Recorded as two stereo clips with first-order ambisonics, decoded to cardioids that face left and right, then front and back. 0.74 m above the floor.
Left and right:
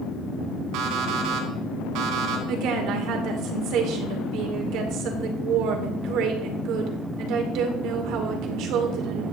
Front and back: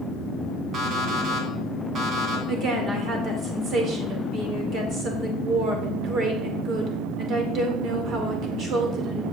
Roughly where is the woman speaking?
Behind right.